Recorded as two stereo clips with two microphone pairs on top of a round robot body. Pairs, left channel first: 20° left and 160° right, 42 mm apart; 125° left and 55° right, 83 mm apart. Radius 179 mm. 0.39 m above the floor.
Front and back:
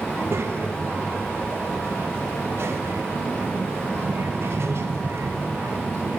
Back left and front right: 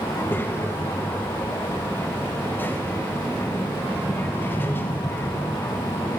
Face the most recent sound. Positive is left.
turn(degrees=-165)